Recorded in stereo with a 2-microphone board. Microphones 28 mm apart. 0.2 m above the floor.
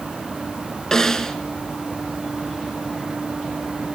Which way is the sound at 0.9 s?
20° left (ahead or behind).